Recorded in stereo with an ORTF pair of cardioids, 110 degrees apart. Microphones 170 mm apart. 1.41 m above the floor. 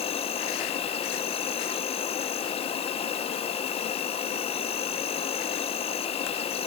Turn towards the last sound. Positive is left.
turn(degrees=35)